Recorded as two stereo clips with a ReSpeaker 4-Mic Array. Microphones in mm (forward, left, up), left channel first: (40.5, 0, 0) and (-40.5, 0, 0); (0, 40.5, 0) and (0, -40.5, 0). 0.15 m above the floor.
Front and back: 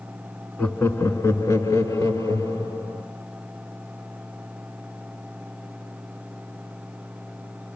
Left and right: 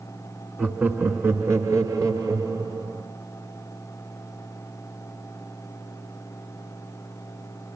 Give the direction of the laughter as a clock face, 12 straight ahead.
1 o'clock.